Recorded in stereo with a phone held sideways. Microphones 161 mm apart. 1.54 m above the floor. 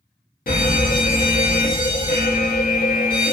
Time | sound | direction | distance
0.5 | an alarm | 65° left (ahead or behind) | 0.9 m